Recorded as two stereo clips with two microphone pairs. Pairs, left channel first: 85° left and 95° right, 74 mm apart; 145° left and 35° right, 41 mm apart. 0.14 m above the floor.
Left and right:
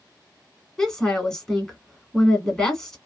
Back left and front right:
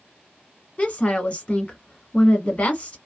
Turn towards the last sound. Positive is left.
turn(degrees=160)